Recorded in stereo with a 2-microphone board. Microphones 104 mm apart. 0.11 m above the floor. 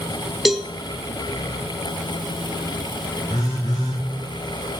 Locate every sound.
0.5 s a cowbell: centre (ahead or behind), 0.6 m
3.3 s a phone buzzing: 65° left (ahead or behind), 4 m